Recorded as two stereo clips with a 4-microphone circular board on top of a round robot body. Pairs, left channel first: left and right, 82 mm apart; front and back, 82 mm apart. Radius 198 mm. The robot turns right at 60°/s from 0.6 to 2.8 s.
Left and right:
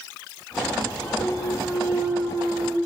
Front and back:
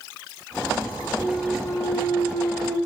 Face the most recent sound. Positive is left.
turn(degrees=25)